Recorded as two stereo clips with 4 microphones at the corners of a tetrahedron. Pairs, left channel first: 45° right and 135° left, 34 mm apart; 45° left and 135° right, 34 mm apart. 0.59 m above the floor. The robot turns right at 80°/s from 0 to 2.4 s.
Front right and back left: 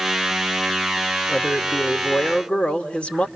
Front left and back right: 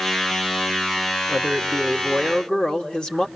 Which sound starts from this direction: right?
A man speaking, at 1.3 s.